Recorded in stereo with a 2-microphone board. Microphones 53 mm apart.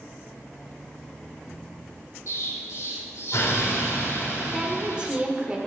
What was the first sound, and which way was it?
An explosion, 65° left (ahead or behind).